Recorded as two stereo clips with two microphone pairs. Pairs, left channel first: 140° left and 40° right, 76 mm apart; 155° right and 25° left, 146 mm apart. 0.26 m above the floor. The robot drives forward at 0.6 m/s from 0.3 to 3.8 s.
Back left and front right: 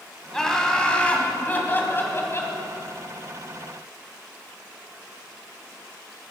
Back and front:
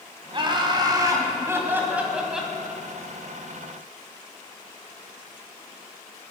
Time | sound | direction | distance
0.3 | laughter | 60° left | 2 m